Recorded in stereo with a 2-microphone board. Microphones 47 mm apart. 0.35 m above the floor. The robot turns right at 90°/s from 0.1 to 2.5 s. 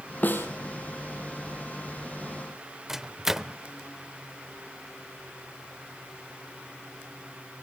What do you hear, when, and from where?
0.2 s a snare drum: 40° left (ahead or behind), 4 m; by 0.5 s 65° left (ahead or behind), 4 m
2.9 s a microwave: 5° right (ahead or behind), 0.7 m